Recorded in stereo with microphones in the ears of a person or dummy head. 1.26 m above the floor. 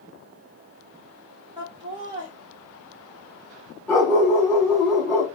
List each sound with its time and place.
1.6 s laughter: 20° right (ahead or behind), 0.7 m
3.9 s a dog barking: 10° left (ahead or behind), 1.4 m